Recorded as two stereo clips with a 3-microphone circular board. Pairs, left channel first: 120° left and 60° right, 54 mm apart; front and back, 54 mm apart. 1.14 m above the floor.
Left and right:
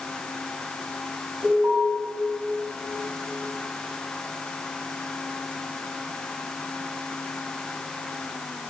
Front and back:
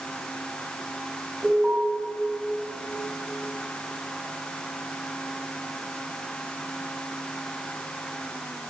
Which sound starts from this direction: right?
An alarm, at 1.4 s.